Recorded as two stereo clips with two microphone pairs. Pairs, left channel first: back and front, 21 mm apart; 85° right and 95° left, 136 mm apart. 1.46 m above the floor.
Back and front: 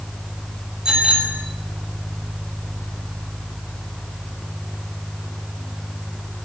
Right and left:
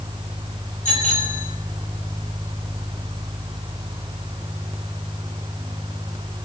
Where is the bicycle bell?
60° right, 6.5 m.